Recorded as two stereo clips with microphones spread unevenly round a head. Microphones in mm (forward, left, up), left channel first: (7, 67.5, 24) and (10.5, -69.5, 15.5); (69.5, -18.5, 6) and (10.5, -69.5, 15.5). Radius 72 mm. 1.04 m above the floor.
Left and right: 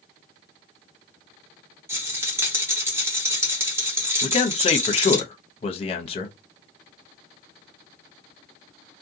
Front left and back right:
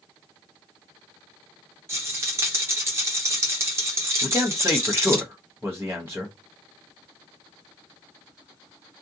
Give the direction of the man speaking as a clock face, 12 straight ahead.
7 o'clock.